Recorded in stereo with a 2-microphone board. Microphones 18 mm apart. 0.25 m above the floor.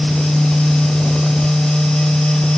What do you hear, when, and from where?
Only background noise.